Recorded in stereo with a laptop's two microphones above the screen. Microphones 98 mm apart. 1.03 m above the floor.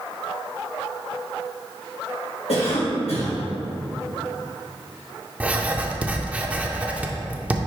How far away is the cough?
About 1.9 m.